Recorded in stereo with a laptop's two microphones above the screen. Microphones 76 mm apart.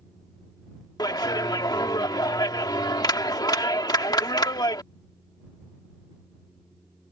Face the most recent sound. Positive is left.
turn(degrees=60)  # may be behind; listen again after turning